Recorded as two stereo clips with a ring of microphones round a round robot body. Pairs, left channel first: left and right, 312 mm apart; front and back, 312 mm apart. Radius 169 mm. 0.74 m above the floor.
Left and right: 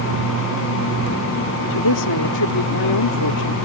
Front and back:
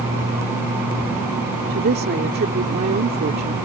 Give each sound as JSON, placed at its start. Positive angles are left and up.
{"t": 1.7, "sound": "a woman speaking", "azimuth_deg": 120}